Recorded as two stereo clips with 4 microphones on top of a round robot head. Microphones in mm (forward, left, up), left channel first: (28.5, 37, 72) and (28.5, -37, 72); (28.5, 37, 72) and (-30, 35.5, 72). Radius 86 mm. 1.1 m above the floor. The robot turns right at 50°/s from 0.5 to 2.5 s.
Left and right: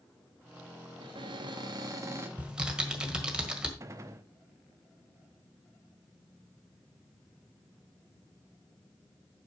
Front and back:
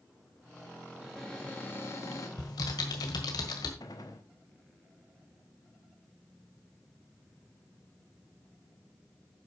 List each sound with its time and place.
1.0 s a cupboard door: 95° right, 1.9 m; by 2.3 s 30° right, 1.9 m
2.4 s typing on a keyboard: 15° right, 1.6 m; by 3.7 s 10° right, 1.6 m
3.8 s a gunshot: 40° right, 0.7 m